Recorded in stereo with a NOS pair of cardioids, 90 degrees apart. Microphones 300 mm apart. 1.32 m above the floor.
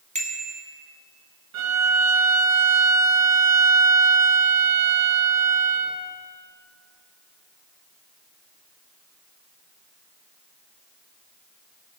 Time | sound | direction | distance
0.1 | a bicycle bell | 25° right | 2.5 m
1.5 | a violin | 60° right | 1.4 m